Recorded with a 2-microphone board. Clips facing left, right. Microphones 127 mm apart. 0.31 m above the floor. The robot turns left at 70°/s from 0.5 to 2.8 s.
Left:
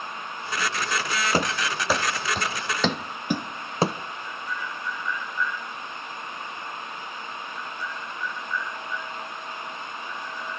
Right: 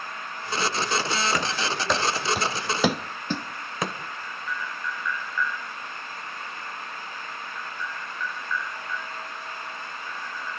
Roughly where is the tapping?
Left.